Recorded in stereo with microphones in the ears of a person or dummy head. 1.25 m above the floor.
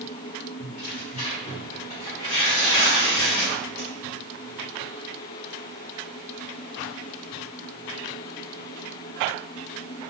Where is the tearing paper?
45° left (ahead or behind), 1.4 m.